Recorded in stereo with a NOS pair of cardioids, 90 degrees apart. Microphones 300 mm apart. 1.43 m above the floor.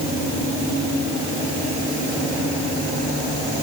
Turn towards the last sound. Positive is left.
No sound to turn to.